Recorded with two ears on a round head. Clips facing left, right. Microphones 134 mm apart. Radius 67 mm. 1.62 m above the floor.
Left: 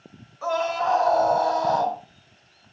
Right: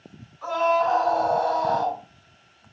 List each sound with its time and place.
0.4 s a scream: 50° left (ahead or behind), 8.5 m